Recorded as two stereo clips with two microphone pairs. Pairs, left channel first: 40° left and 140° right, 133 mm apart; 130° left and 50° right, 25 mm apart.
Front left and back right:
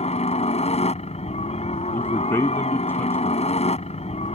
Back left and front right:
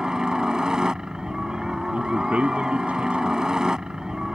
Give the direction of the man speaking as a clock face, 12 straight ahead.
1 o'clock.